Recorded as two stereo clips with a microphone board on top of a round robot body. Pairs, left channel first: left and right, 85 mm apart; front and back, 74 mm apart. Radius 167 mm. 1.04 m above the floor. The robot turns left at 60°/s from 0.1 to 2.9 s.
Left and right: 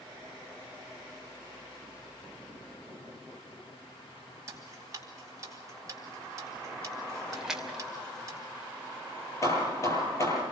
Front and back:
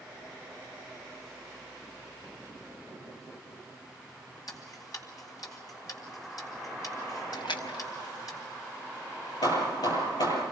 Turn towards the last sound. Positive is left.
turn(degrees=35)